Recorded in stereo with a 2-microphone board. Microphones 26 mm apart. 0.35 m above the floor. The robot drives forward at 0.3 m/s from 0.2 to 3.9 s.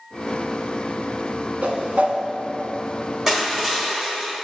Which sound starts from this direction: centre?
Crushing, at 3.3 s.